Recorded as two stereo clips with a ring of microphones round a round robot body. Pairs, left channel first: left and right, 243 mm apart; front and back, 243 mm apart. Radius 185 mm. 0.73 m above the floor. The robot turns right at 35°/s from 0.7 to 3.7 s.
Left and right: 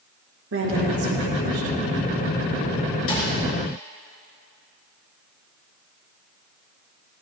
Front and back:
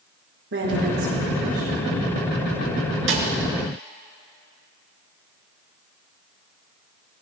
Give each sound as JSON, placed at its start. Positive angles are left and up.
{"t": 0.5, "sound": "a woman speaking", "azimuth_deg": -130, "distance_m": 2.0}
{"t": 3.1, "sound": "a snare drum", "azimuth_deg": 145, "distance_m": 3.0}